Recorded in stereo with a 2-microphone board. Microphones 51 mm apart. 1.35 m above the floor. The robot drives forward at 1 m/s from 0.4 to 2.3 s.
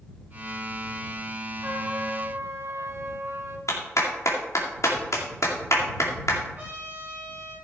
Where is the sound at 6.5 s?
25° right (ahead or behind), 6.5 m.